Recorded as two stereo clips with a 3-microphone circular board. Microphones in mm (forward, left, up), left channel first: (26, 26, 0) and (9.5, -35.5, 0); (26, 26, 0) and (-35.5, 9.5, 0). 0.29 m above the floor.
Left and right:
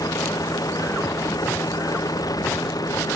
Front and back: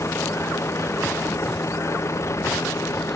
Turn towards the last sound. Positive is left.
turn(degrees=60)